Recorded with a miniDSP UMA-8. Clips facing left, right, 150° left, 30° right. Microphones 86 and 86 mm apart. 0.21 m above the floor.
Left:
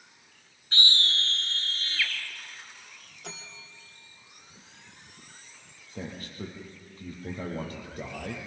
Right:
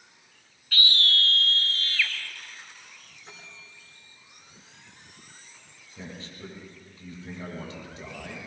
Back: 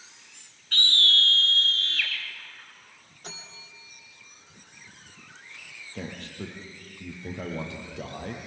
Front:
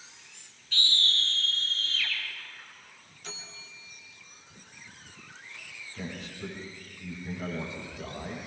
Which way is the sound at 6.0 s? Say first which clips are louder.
Left 3 dB, back 2 dB; 130° left.